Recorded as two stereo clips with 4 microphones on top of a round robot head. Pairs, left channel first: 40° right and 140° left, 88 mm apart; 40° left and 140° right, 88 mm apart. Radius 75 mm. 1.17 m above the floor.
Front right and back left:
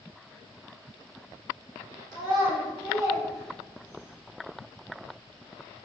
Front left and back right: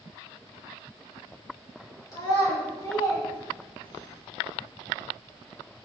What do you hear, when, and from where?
2.1 s a child speaking: 95° left, 2 m; by 4.1 s 65° left, 1.9 m